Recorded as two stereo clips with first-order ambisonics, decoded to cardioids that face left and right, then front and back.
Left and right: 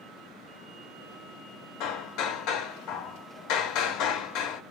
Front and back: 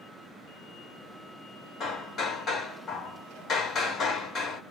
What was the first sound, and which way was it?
Hammering, 65° left.